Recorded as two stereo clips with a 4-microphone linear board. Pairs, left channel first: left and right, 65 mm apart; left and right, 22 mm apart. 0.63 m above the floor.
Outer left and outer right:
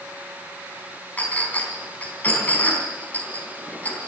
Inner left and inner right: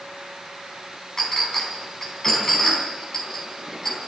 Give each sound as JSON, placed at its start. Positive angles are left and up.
{"t": 1.2, "sound": "a clink", "side_deg": 25, "distance_m": 4.0}